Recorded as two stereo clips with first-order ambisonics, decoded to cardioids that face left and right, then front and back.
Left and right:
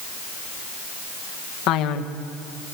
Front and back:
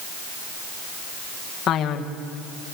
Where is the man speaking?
60° left, 2 m.